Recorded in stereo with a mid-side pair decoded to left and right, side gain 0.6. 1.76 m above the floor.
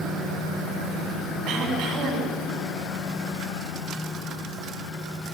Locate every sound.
1.5 s throat clearing: 60° right, 7.5 m